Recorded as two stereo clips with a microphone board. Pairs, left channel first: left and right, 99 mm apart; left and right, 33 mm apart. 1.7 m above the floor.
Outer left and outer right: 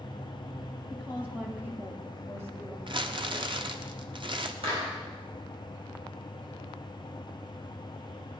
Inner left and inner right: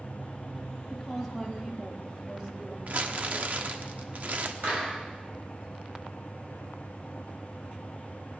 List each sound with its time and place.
0.9 s a woman speaking: 10° right (ahead or behind), 3.5 m; by 2.8 s 30° right (ahead or behind), 3 m
2.9 s crumpling: 55° right (ahead or behind), 1.1 m
4.6 s a clap: 65° right (ahead or behind), 7 m